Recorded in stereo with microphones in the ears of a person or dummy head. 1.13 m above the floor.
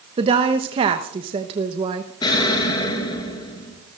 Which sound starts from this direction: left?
An explosion, at 2.2 s.